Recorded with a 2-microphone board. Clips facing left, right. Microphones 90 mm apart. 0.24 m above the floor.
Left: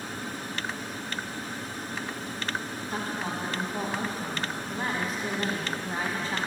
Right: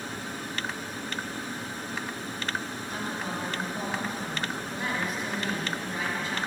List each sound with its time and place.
2.9 s a woman speaking: 35° left (ahead or behind), 1.9 m